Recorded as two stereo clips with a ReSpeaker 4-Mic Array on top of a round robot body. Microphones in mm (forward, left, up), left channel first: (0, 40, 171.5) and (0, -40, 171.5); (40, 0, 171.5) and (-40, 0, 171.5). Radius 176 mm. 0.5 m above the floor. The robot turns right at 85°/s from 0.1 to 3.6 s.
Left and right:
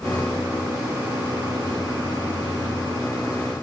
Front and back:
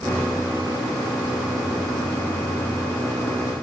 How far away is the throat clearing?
I don't hear throat clearing.